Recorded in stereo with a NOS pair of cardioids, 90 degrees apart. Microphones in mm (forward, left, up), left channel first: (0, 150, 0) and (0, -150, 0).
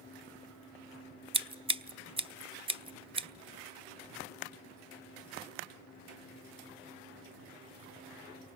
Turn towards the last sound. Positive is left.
turn(degrees=-20)